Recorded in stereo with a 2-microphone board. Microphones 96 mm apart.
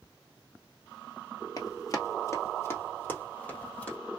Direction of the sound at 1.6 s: 40° left (ahead or behind).